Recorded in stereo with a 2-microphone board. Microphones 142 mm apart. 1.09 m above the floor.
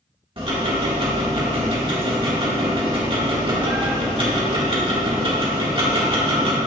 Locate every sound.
0.4 s ticking: 40° right (ahead or behind), 1.8 m